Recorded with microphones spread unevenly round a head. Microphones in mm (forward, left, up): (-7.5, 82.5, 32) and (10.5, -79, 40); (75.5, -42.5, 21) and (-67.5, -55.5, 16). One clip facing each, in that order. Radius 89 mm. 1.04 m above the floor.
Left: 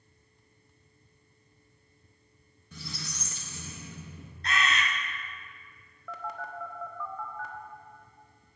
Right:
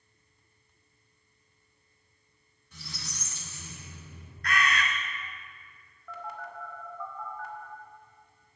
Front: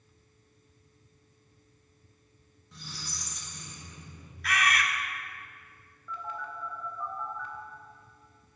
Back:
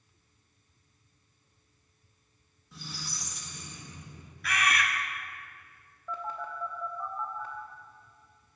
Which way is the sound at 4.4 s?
165° left.